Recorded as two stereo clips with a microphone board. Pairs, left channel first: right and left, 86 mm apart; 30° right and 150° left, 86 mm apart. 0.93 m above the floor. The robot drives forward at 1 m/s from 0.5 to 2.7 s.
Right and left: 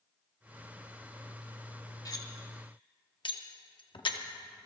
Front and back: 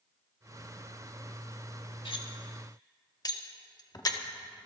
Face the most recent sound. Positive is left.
turn(degrees=-75)